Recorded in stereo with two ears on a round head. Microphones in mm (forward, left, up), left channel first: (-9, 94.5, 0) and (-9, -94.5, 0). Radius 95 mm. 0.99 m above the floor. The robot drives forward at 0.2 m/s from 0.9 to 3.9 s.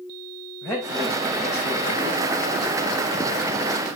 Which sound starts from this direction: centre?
A man speaking, at 0.6 s.